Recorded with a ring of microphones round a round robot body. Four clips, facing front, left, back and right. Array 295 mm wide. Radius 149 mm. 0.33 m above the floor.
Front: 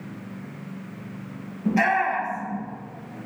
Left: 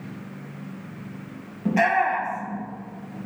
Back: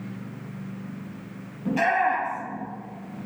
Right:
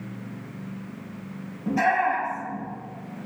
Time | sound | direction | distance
1.6 | a shout | 80° left | 9 m